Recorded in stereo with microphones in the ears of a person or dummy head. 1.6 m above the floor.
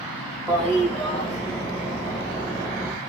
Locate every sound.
0.5 s a toilet flushing: 10° left (ahead or behind), 1.7 m